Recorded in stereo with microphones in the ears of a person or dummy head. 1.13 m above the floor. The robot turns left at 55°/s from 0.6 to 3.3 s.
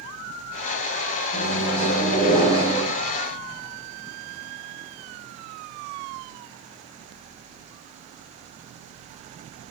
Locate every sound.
1.3 s a microwave: 100° left, 0.9 m; by 2.8 s 20° left, 0.9 m